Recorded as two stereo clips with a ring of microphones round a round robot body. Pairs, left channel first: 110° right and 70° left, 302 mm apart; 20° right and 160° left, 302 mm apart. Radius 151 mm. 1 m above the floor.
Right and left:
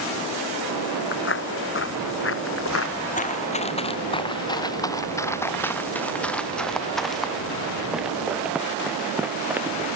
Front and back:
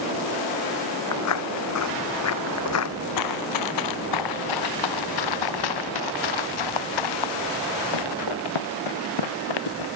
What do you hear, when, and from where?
1.1 s footsteps: 60° right; by 2.9 s 65° right
3.2 s running footsteps: 45° right; by 9.9 s 15° right